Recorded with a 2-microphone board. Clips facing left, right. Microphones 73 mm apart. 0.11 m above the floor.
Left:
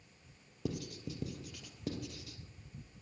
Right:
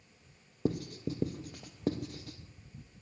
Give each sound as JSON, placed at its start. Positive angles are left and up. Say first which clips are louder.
{"t": 0.7, "sound": "writing", "louder": "right 7 dB", "side_deg": -40, "distance_m": 1.0}